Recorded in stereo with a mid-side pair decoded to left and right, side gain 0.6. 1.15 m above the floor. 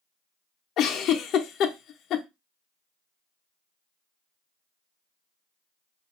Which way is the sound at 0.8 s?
55° left.